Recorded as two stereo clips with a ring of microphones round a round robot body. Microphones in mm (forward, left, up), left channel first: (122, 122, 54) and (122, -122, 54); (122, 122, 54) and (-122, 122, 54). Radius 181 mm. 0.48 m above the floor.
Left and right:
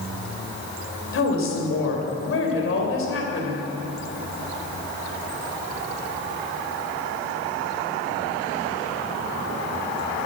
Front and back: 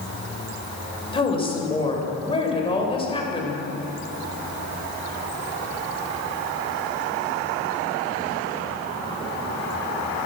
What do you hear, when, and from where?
1.1 s a woman speaking: 65° left, 2.5 m